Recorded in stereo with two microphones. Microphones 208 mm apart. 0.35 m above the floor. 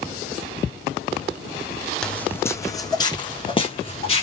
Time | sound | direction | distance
2.0 | footsteps | 5° left (ahead or behind) | 0.9 m